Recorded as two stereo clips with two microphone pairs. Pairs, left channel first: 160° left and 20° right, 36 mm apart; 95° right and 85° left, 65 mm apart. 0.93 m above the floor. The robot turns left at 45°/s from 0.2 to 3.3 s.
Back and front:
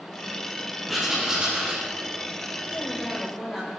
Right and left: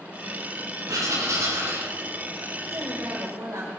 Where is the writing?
70° left, 6 m; by 1.9 s 25° left, 6 m.